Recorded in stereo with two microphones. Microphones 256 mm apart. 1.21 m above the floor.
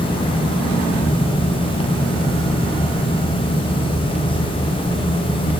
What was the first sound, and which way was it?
Only background noise.